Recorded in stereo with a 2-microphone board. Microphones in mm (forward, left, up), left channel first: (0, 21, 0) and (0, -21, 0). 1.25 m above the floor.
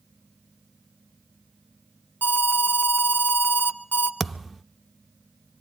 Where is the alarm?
50° left (ahead or behind), 1.4 m.